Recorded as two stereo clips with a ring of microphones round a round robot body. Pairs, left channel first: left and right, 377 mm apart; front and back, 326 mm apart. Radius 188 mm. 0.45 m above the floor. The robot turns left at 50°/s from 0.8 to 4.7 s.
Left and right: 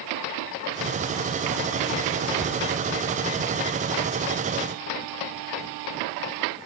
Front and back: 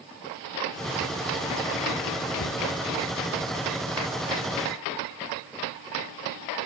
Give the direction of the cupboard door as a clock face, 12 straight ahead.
12 o'clock.